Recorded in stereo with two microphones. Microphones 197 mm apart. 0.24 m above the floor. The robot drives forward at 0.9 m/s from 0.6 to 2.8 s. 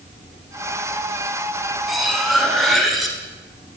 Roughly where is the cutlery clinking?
Centre.